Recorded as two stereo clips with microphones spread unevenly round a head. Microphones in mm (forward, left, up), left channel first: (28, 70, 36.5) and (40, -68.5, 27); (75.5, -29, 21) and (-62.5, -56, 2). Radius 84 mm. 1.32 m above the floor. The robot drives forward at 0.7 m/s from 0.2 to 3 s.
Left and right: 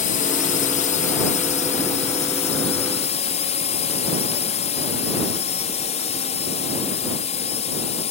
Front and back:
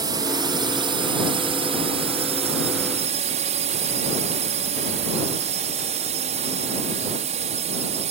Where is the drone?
125° left; by 8.1 s 145° left.